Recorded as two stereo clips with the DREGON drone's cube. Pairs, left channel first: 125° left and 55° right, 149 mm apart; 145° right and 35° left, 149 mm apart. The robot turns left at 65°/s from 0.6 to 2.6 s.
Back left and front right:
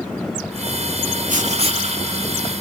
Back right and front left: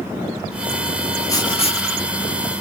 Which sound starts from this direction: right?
Writing, at 1.3 s.